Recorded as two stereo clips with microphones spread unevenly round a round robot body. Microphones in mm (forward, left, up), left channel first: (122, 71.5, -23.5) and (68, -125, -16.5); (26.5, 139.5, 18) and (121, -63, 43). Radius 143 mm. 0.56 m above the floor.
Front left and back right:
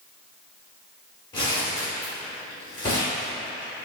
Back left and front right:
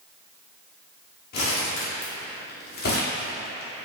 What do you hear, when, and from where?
1.3 s crumpling: 145° left, 0.8 m